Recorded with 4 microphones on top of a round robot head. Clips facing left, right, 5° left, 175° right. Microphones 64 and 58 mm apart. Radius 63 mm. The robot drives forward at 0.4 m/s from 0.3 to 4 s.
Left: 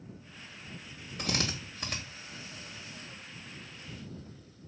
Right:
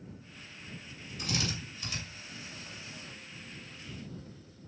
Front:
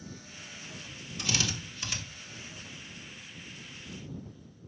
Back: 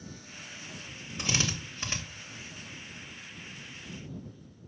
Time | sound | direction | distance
1.2 | a drill | 125° left | 2.5 m